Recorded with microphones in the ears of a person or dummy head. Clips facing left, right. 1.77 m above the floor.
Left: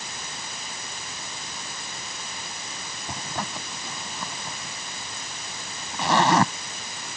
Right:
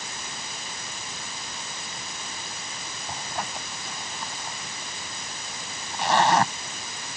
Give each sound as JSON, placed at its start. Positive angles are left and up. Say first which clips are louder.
{"t": 3.1, "sound": "a zipper", "louder": "left 1 dB", "side_deg": 70}